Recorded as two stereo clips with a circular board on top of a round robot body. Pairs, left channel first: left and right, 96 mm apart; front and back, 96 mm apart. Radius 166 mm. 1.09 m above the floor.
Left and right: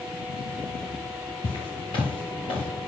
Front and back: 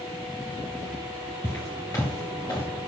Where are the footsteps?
60° left, 1.2 m; by 2.7 s 55° left, 2 m.